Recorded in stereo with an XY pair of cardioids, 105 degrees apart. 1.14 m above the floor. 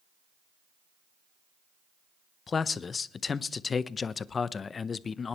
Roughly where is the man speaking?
Ahead left.